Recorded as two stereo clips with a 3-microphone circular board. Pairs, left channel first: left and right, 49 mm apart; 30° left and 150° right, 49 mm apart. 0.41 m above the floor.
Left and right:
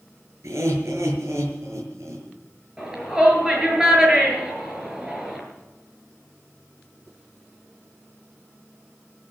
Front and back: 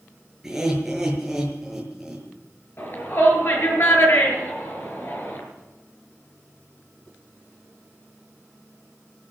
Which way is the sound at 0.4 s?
70° right.